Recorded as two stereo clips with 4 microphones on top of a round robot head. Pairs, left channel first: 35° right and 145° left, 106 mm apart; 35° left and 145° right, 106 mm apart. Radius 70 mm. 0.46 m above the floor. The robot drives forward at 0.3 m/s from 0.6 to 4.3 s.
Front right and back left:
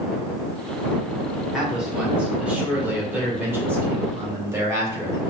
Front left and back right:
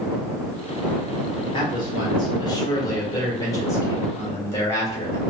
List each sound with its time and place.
1.5 s a man speaking: 65° left, 2 m; by 5.2 s 90° left, 2 m